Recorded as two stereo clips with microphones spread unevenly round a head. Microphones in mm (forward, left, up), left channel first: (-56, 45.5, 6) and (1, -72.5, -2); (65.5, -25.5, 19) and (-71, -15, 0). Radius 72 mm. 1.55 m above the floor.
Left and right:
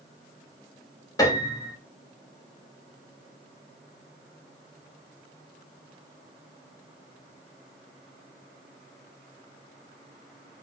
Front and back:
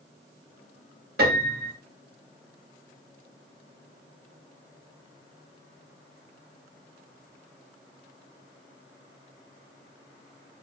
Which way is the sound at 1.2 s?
Straight behind.